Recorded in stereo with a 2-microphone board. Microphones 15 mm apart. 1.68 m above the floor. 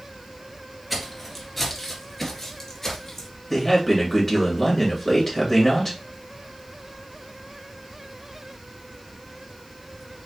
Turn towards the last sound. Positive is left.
turn(degrees=10)  # may be behind; listen again after turning